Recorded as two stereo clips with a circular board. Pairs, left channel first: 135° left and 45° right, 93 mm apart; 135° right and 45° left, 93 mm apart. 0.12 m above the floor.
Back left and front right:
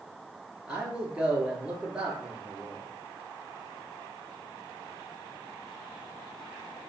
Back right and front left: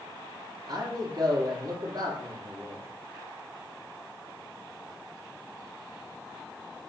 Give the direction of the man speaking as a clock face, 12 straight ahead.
11 o'clock.